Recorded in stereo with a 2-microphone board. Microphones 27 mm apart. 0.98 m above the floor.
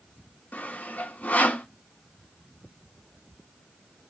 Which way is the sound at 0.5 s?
75° left (ahead or behind).